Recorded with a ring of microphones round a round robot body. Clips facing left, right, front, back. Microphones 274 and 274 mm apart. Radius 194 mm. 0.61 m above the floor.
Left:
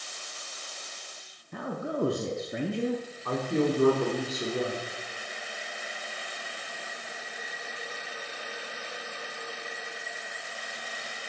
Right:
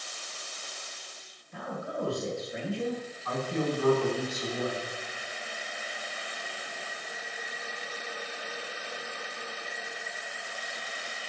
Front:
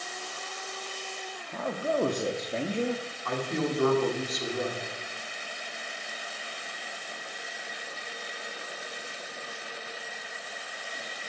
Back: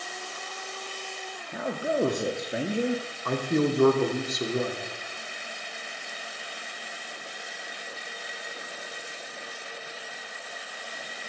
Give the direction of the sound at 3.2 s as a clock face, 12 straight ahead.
7 o'clock.